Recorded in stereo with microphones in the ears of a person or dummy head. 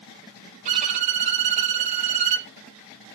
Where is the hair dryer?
I don't hear a hair dryer.